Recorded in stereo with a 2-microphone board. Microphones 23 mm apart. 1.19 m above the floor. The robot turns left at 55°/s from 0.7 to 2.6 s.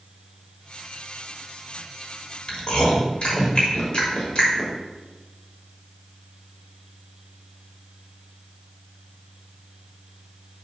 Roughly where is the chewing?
Left.